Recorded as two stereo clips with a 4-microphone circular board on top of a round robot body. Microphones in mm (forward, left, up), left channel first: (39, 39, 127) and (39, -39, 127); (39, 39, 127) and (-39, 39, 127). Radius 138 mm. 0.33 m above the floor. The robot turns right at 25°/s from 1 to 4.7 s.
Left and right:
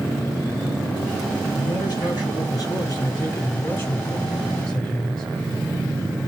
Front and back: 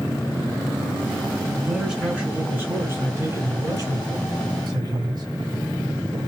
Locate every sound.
1.6 s a man speaking: 85° left, 2.5 m; by 5.2 s 165° left, 2.5 m